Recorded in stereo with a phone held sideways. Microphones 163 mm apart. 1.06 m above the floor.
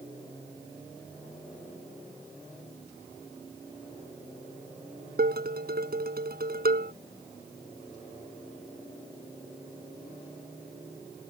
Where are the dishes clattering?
70° right (ahead or behind).